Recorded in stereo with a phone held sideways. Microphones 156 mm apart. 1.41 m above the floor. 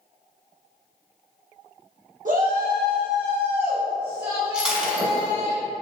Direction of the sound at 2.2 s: 60° right (ahead or behind).